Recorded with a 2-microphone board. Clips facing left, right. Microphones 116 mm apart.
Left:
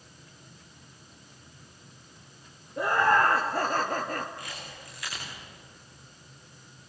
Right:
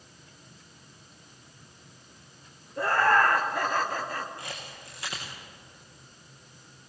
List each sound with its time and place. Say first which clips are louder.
2.8 s laughter: even; 15° left (ahead or behind), 2.0 m; by 4.3 s 55° left (ahead or behind), 1.9 m
4.4 s a camera shutter: right 1 dB; 30° right (ahead or behind), 8 m